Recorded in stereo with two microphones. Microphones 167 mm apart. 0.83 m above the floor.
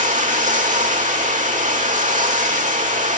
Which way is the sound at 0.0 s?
55° right (ahead or behind).